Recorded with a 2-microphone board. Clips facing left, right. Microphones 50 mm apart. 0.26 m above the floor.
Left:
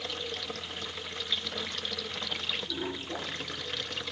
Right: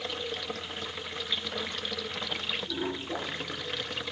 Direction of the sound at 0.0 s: 10° right (ahead or behind).